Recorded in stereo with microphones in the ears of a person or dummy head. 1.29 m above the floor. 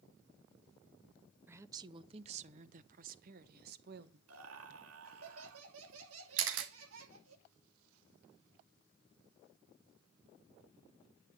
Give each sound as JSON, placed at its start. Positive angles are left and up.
{"t": 1.5, "sound": "a woman speaking", "side_deg": -10, "distance_m": 0.7}
{"t": 4.3, "sound": "laughter", "side_deg": -85, "distance_m": 2.5}
{"t": 6.4, "sound": "a camera shutter", "side_deg": -70, "distance_m": 1.4}